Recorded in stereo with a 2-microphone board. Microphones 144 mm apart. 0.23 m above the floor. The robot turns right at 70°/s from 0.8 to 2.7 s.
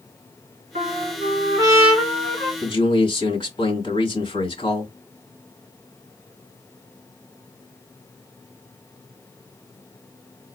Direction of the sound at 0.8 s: 85° right.